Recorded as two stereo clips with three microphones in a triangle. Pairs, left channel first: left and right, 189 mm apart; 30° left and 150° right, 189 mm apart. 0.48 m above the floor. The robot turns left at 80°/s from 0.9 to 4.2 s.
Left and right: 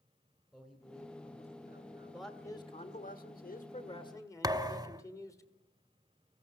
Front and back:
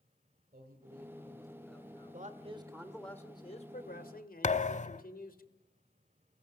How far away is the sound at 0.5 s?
About 2.5 m.